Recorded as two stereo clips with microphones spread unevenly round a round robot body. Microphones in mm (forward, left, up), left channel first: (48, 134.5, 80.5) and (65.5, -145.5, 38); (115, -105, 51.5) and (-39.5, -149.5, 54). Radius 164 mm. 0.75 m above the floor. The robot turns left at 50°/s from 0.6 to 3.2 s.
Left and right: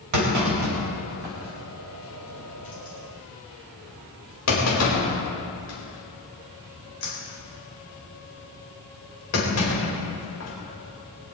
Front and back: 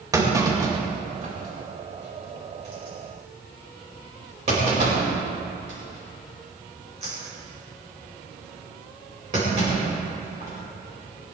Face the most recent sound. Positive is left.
turn(degrees=135)